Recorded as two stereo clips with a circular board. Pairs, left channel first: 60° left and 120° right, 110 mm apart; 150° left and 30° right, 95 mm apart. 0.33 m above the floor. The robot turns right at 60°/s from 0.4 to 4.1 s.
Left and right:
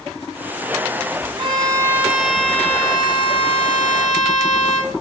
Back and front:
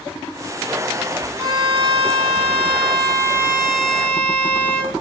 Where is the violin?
85° right, 3 m; by 5.0 s 80° left, 3 m.